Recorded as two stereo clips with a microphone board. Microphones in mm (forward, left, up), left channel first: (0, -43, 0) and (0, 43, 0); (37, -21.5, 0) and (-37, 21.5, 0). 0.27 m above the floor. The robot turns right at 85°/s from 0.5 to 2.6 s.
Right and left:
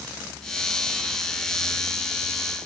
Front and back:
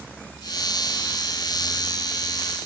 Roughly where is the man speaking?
I don't hear a man speaking.